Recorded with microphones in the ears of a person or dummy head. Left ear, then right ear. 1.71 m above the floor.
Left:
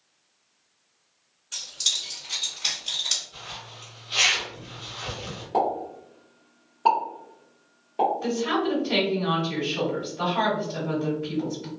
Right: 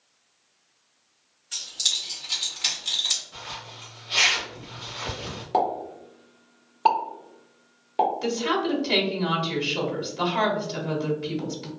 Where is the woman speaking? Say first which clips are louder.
Even; 50° right (ahead or behind), 1.3 m.